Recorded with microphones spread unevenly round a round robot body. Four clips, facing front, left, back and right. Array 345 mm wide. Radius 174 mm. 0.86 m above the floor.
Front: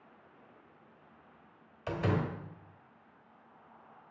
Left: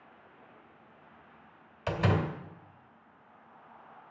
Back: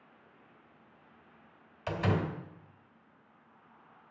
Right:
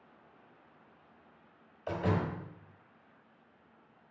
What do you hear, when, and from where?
1.9 s a door slam: 105° left, 3 m